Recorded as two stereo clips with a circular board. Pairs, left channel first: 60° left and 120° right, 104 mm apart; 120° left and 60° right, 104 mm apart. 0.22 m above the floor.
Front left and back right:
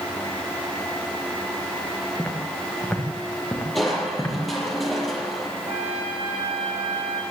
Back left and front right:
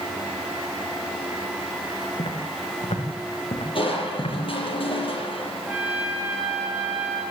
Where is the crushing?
150° left, 7.5 m.